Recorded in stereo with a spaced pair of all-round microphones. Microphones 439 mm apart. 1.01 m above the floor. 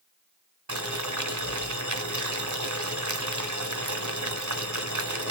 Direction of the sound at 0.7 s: 40° right (ahead or behind).